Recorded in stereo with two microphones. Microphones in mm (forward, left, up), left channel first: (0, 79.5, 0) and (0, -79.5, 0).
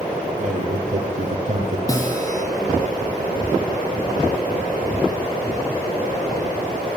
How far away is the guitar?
About 4.5 m.